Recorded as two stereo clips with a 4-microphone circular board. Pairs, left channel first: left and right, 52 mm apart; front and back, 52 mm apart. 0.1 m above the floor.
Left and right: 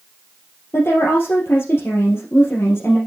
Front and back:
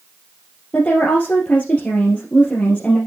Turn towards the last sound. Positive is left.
turn(degrees=65)